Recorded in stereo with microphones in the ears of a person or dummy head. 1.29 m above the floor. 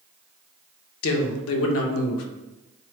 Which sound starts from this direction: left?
A man speaking, at 1.0 s.